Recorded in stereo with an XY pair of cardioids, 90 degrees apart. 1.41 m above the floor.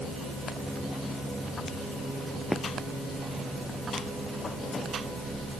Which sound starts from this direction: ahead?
Footsteps, at 2.5 s.